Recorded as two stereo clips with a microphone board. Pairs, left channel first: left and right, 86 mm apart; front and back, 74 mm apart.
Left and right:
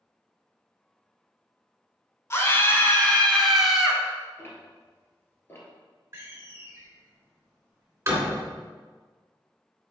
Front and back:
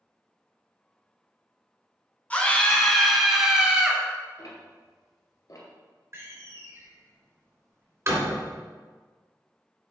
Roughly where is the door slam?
Behind right.